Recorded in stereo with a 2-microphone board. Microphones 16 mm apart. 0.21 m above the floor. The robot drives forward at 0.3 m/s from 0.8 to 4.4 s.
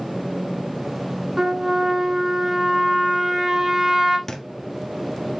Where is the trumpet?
35° right (ahead or behind), 1.5 m; by 4.2 s 25° right (ahead or behind), 2 m.